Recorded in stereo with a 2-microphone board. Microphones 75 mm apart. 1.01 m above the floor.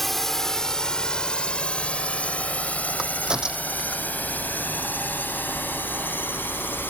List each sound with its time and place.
0.0 s a drone: centre (ahead or behind); by 6.9 s 25° left (ahead or behind)
3.0 s a crack: 10° right (ahead or behind)